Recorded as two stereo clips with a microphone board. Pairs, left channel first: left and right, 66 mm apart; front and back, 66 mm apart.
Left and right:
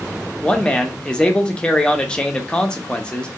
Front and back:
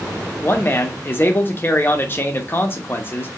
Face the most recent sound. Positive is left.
turn(degrees=20)